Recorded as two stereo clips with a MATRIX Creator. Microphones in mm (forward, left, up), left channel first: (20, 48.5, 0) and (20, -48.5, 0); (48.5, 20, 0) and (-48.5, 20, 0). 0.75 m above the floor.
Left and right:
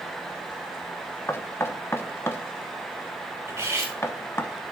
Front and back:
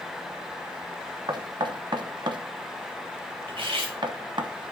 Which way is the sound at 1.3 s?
150° left.